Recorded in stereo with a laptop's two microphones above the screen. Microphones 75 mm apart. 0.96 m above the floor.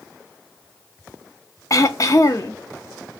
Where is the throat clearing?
45° left (ahead or behind), 0.5 m.